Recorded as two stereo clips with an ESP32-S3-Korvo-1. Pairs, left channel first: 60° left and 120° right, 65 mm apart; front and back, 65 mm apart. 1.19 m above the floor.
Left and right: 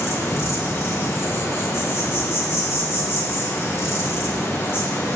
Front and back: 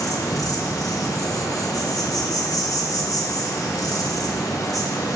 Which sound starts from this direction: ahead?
An insect, at 0.0 s.